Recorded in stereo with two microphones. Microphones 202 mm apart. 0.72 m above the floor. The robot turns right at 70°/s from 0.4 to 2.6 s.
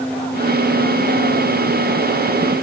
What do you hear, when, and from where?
Only background noise.